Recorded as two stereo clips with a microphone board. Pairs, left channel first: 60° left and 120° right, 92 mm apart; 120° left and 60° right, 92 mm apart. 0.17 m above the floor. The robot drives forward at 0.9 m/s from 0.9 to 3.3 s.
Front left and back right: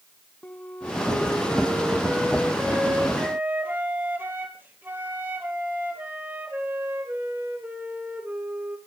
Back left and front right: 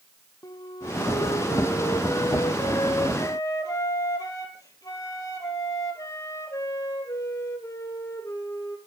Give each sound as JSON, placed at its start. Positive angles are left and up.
{"t": 0.4, "sound": "a flute", "azimuth_deg": 125, "distance_m": 0.9}